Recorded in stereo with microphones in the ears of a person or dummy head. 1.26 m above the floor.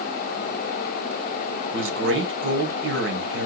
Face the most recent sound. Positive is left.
turn(degrees=-60)  # may be behind; listen again after turning